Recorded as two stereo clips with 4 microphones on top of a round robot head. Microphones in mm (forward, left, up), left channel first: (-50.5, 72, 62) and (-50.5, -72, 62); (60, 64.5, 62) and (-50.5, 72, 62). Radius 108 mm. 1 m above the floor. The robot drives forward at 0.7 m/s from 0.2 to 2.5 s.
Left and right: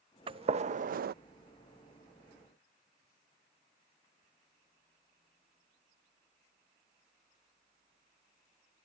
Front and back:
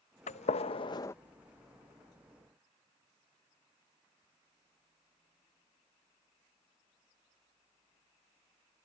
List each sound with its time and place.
0.3 s a gunshot: 30° right; by 1.1 s 75° right